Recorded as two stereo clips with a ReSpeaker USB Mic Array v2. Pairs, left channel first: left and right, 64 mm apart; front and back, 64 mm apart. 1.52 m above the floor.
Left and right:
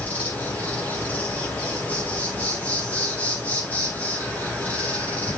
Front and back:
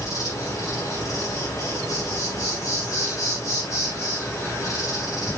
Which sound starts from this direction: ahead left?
An insect, at 0.0 s.